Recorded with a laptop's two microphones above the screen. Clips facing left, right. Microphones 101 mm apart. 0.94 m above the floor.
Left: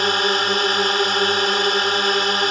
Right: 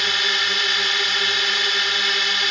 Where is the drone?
40° left (ahead or behind).